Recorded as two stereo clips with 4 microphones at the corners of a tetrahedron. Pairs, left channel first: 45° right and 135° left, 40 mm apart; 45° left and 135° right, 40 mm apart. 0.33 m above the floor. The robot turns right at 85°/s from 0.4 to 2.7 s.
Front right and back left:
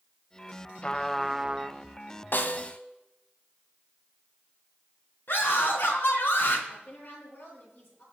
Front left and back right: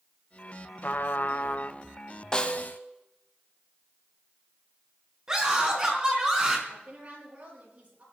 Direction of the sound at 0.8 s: 10° left.